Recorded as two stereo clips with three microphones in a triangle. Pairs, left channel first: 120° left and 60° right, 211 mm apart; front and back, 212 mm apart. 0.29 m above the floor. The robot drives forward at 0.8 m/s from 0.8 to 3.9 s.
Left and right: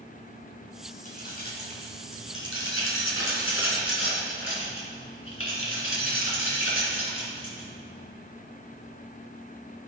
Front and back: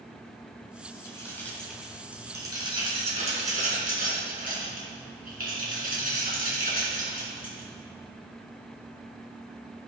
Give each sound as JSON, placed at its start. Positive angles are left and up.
{"t": 1.1, "sound": "keys jangling", "azimuth_deg": 75, "distance_m": 2.0}